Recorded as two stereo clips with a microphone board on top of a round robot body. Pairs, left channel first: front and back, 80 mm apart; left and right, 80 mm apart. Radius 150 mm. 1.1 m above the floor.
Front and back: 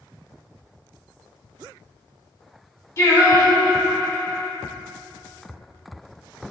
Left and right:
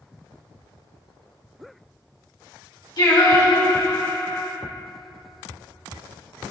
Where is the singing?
55° left, 2.5 m.